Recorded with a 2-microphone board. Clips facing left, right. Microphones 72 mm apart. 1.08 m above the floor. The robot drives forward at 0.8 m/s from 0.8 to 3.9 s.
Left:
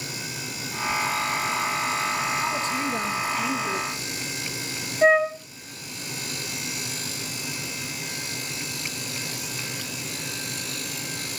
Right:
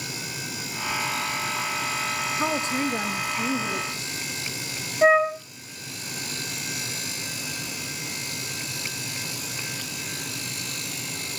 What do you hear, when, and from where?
2.4 s a woman speaking: 35° right (ahead or behind), 0.8 m; by 4.0 s 15° right (ahead or behind), 1.8 m
5.0 s a flute: 5° right (ahead or behind), 1.2 m